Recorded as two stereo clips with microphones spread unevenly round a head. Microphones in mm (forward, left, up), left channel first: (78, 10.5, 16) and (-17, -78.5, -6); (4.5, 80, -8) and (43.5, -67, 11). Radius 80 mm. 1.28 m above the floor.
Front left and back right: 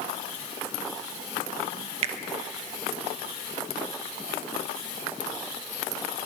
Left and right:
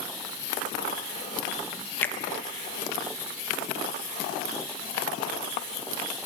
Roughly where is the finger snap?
Behind.